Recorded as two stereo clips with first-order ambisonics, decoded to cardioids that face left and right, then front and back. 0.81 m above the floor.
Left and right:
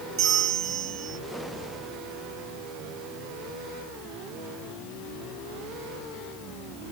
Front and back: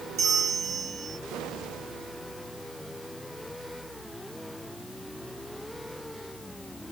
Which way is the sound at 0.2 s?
135° right.